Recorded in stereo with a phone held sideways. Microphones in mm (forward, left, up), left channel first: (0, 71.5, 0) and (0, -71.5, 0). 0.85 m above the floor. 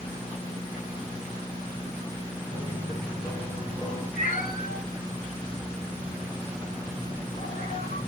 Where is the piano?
20° left (ahead or behind), 5.5 m.